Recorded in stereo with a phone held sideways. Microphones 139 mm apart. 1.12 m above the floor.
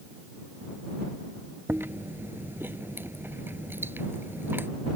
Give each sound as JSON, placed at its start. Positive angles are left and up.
{"t": 1.7, "sound": "chewing", "side_deg": -15}